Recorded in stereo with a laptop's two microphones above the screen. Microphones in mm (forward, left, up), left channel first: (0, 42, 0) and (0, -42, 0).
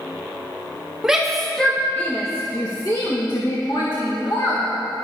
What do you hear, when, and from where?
1.0 s a shout: 10° right (ahead or behind), 1.4 m; by 4.7 s 70° left (ahead or behind), 2.5 m